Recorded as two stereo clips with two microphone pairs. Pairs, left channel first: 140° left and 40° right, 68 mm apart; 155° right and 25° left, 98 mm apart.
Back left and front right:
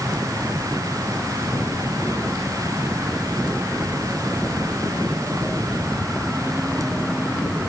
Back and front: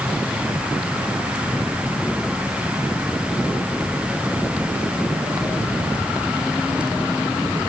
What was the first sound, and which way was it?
Only background noise.